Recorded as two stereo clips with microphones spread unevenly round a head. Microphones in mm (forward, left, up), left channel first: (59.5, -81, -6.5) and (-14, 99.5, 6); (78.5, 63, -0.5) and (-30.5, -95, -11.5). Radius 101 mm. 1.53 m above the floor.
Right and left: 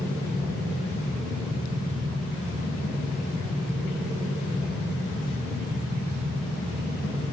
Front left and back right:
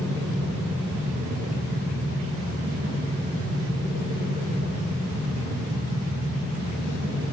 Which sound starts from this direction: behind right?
A machine running, at 0.0 s.